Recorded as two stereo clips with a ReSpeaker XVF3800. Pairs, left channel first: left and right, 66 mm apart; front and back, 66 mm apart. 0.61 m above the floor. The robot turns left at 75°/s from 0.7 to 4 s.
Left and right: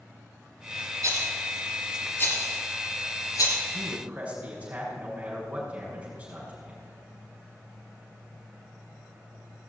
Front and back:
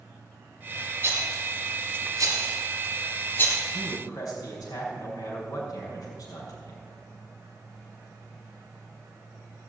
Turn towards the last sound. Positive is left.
turn(degrees=-25)